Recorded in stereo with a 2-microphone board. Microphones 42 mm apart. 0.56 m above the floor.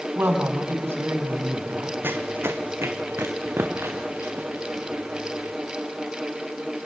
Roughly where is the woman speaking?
Right.